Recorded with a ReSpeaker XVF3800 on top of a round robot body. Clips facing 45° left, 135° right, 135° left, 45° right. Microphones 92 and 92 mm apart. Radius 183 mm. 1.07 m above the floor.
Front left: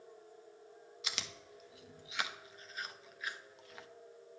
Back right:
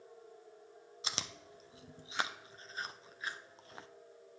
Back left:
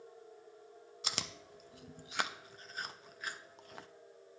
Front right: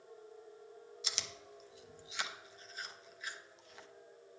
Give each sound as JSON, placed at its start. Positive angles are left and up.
{"t": 1.0, "sound": "chewing", "azimuth_deg": 170, "distance_m": 0.7}